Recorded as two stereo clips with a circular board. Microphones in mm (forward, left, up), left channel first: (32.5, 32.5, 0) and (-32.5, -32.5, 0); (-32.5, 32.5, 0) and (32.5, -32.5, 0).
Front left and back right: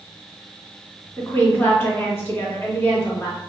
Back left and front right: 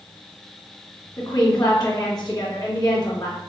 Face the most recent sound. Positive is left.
turn(degrees=105)